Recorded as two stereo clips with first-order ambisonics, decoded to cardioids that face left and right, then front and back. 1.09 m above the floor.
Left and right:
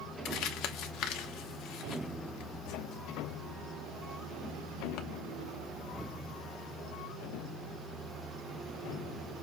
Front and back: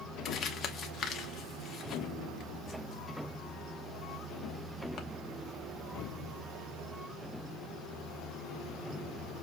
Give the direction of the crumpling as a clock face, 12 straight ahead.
10 o'clock.